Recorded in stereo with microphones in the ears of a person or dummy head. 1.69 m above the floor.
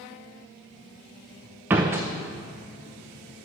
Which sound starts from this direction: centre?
A door slam, at 1.7 s.